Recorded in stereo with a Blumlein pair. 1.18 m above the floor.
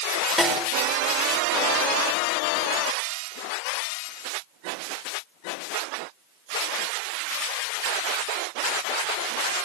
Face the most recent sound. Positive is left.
turn(degrees=10)